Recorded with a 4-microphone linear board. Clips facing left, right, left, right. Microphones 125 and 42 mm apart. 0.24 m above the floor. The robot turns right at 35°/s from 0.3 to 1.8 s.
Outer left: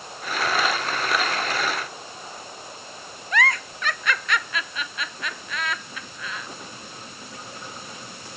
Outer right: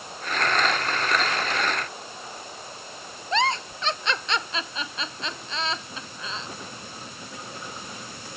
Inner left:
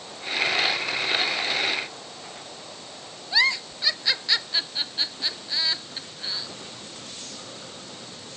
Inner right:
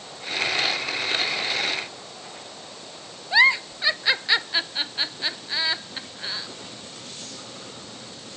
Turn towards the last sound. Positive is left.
turn(degrees=-25)  # may be behind; listen again after turning